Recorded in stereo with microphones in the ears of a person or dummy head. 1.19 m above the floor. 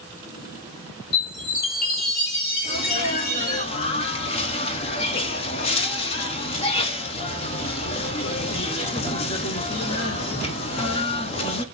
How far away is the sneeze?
About 0.8 m.